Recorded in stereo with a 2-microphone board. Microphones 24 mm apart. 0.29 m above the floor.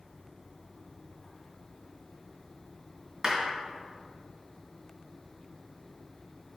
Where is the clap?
30° right (ahead or behind), 2.5 m.